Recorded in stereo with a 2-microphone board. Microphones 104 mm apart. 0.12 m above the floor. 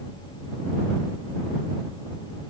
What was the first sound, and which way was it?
Only background noise.